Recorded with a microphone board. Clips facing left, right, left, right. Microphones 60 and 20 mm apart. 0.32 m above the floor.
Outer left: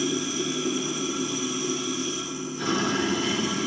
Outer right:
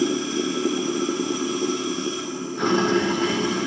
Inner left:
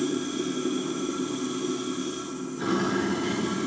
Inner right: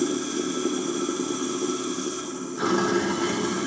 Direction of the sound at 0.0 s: 50° right (ahead or behind).